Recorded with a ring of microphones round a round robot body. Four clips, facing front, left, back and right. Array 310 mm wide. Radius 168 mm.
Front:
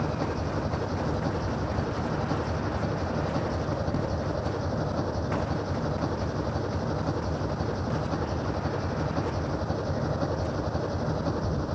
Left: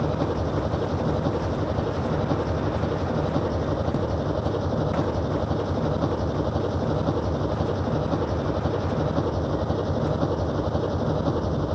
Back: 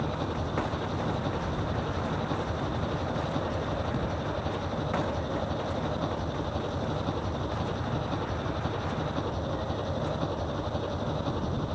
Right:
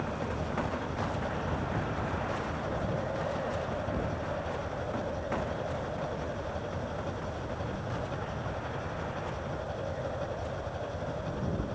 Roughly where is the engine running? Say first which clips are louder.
Left 9 dB, front 2 dB; left.